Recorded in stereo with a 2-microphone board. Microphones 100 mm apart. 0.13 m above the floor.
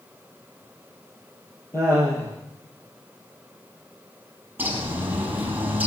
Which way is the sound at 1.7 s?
25° left (ahead or behind).